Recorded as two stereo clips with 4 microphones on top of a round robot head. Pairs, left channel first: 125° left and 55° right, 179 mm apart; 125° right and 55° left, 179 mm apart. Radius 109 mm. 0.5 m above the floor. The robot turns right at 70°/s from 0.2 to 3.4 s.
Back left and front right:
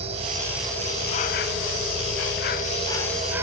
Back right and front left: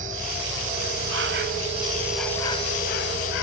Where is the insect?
5° left, 0.8 m; by 3.4 s 130° right, 0.8 m.